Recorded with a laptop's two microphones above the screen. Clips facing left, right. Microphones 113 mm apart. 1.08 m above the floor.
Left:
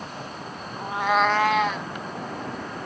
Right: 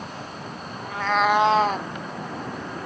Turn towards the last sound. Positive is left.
turn(degrees=-50)  # may be behind; listen again after turning